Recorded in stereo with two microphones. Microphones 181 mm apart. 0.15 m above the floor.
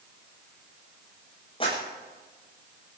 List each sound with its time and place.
1.6 s a clap: 30° left (ahead or behind), 9.5 m